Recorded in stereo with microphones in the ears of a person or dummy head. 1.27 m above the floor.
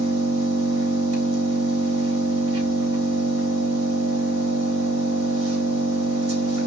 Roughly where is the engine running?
Right.